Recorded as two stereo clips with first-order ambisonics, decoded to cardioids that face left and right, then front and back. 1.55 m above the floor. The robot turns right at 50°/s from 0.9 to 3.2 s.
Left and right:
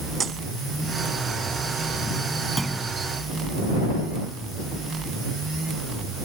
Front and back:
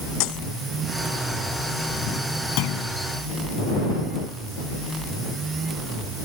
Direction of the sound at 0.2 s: 20° right.